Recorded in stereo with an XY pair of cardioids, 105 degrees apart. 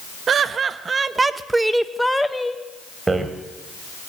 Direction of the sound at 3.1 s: 25° right.